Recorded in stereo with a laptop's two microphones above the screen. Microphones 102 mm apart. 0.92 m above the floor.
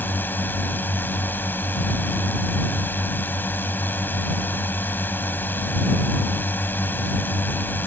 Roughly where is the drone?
Centre.